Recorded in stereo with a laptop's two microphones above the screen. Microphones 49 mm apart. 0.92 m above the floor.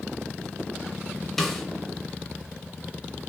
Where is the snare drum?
5° left (ahead or behind), 0.5 m.